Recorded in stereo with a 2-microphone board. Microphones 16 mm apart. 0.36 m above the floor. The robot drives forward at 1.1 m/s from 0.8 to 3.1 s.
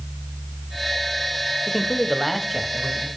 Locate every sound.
1.7 s a man speaking: centre (ahead or behind), 1.0 m